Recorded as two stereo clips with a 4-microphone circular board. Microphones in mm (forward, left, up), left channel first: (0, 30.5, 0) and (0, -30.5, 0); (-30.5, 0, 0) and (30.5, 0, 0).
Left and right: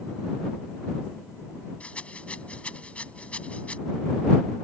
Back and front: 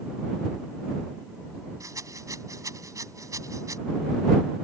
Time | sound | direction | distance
1.8 | a rattle | 20° left | ?